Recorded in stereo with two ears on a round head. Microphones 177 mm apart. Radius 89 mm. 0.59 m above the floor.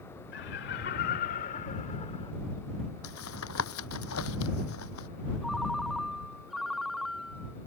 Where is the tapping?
80° left.